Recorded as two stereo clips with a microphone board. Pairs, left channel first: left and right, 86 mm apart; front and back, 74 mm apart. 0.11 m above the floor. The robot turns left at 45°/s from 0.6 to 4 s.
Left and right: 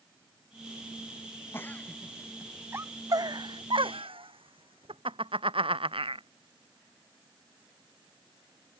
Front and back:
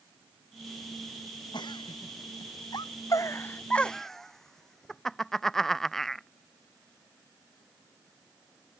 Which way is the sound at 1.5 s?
25° left.